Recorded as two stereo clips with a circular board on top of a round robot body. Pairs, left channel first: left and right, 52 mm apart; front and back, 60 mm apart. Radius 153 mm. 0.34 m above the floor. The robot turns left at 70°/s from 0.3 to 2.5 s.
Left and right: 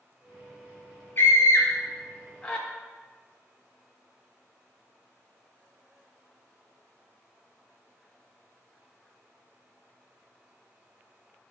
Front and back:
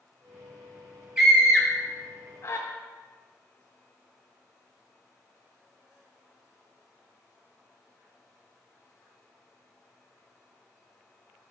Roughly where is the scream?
Left.